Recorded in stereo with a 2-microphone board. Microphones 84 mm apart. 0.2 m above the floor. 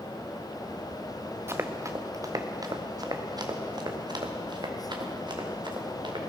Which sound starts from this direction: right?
Running footsteps, at 1.5 s.